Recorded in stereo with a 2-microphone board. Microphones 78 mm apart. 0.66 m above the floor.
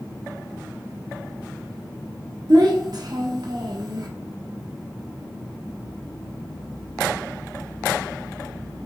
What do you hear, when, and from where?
2.5 s a child speaking: 60° right (ahead or behind), 0.9 m